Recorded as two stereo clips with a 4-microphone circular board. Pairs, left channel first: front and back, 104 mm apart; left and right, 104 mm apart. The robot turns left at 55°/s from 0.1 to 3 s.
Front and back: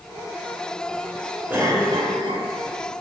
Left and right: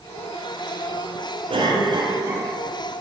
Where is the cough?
105° right, 3.5 m; by 2.5 s 160° right, 3.5 m.